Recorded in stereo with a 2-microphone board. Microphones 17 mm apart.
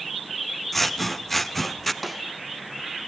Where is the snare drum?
5° right (ahead or behind), 1.6 m.